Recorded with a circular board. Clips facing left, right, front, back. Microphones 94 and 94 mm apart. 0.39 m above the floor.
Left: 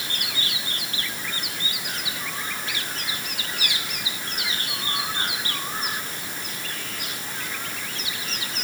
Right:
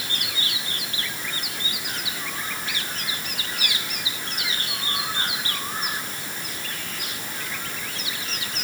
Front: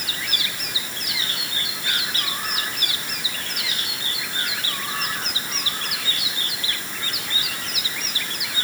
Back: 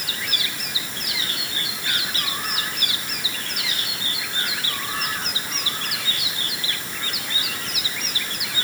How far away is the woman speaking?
I don't hear a woman speaking.